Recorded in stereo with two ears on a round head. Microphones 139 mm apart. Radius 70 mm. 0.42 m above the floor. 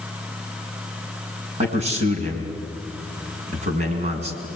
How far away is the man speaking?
About 4.5 m.